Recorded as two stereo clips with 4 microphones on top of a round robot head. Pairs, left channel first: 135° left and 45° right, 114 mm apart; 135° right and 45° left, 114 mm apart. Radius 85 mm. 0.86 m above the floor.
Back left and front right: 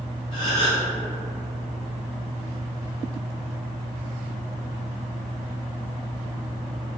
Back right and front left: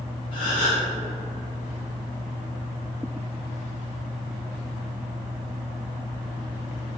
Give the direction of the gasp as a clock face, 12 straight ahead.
6 o'clock.